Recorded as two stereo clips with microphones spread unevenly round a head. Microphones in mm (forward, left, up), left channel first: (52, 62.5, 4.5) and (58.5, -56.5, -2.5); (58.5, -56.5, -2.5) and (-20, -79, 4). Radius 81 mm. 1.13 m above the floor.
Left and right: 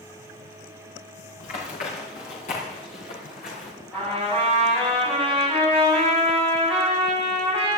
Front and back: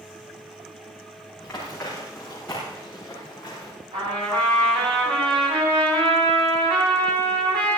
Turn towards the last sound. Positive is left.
turn(degrees=175)